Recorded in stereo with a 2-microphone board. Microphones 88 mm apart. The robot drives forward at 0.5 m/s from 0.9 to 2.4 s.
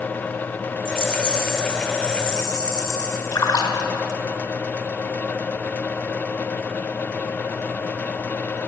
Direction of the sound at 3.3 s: 45° left (ahead or behind).